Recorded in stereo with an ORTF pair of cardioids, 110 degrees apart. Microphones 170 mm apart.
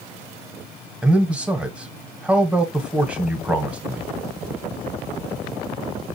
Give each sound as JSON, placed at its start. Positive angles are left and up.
{"t": 1.0, "sound": "a man speaking", "azimuth_deg": -5, "distance_m": 1.3}